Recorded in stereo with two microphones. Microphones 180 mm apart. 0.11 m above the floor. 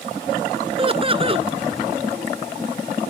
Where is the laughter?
30° right (ahead or behind).